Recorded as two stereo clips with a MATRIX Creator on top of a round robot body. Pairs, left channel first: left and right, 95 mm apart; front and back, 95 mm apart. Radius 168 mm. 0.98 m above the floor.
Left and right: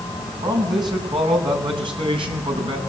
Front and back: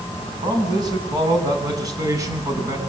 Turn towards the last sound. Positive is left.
turn(degrees=-120)